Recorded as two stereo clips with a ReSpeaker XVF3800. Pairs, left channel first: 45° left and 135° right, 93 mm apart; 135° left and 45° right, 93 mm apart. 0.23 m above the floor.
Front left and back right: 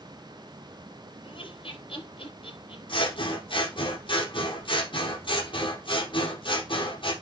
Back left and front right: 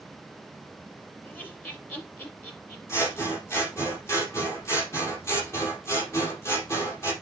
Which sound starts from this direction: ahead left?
Laughter, at 1.2 s.